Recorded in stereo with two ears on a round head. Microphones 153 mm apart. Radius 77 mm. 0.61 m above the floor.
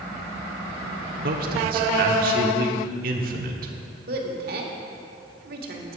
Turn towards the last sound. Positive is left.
turn(degrees=-60)  # may be behind; listen again after turning